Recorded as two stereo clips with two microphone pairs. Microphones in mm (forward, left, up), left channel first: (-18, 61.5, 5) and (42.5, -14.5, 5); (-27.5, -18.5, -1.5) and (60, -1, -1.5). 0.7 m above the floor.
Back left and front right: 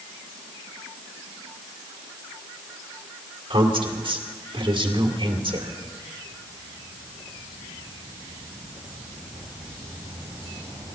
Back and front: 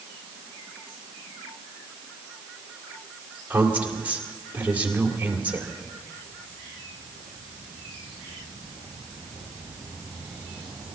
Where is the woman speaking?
60° right, 2.5 m.